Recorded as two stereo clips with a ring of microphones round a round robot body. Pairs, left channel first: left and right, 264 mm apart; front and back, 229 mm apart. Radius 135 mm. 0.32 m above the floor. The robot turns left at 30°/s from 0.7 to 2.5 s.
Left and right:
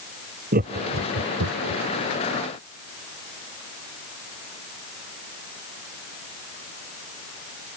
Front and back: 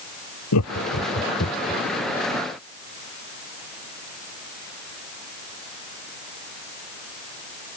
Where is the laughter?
30° right; by 1.8 s 65° right.